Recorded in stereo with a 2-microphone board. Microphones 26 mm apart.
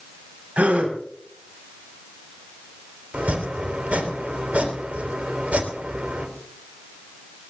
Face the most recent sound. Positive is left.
turn(degrees=-75)  # may be behind; listen again after turning